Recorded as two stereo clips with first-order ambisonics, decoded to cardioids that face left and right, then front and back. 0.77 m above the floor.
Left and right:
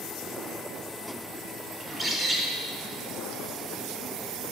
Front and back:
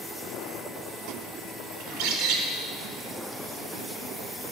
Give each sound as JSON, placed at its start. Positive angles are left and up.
{"t": 1.8, "sound": "a bird", "azimuth_deg": -170, "distance_m": 1.1}